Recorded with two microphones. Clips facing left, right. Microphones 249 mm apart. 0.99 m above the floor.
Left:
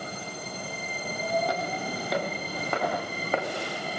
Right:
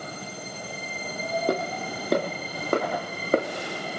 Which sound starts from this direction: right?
Footsteps, at 1.5 s.